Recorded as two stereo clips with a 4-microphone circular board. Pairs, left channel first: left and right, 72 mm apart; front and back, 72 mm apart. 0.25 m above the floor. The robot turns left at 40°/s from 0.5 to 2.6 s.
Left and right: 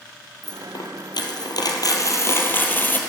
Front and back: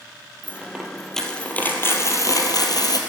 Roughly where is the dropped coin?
Left.